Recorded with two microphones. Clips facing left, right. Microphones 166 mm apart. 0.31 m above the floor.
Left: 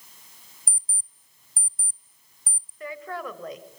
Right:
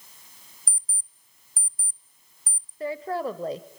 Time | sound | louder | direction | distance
0.7 | an alarm clock | left 4 dB | 25° left (ahead or behind) | 0.6 m
2.8 | a woman speaking | right 6 dB | 30° right (ahead or behind) | 1.1 m